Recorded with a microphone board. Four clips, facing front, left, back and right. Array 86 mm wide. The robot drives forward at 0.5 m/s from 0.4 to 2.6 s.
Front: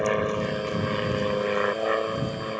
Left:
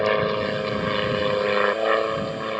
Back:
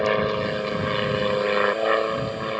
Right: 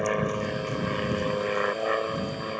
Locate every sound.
0.0 s an aircraft: 125° left; by 2.6 s 130° left